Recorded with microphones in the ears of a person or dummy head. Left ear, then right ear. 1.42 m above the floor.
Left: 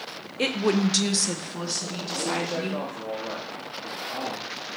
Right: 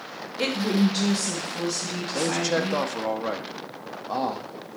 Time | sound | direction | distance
0.4 | a woman speaking | 15° left (ahead or behind) | 0.7 m
2.1 | a man speaking | 80° right | 0.8 m